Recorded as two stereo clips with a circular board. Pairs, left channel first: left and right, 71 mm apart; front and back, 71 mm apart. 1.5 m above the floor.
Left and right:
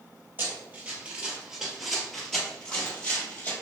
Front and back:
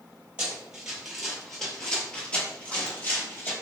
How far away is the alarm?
I don't hear an alarm.